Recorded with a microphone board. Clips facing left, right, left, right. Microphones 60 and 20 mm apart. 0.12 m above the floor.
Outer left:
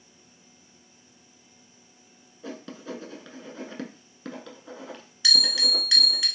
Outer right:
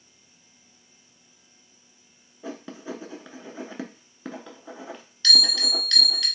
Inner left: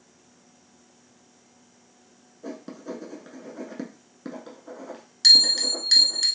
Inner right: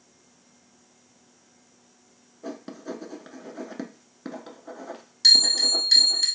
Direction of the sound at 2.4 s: 15° right (ahead or behind).